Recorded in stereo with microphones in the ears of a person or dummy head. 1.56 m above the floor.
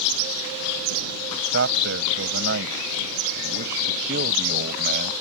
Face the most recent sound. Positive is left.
turn(degrees=-55)  # may be behind; listen again after turning